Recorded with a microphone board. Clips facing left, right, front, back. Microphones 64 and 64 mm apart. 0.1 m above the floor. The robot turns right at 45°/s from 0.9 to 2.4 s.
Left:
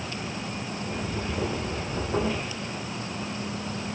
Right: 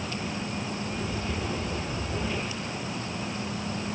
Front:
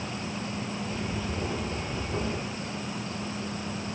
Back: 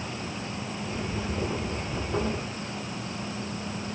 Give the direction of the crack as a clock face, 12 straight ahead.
I don't hear a crack.